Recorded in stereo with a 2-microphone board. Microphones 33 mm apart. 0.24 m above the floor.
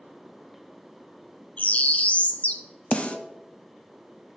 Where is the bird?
40° left (ahead or behind), 0.6 m.